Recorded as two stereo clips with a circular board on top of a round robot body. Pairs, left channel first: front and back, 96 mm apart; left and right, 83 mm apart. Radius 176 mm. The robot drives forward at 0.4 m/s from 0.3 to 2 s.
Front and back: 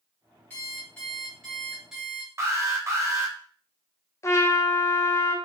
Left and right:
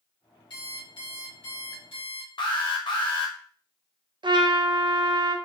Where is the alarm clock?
70° left, 1.7 m; by 2.3 s 95° left, 1.6 m.